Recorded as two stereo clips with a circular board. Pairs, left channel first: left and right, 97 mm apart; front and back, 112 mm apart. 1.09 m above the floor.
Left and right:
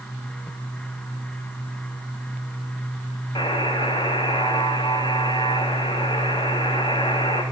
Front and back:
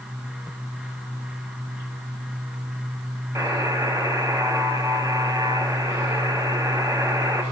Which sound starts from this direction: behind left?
A buzzer, at 3.4 s.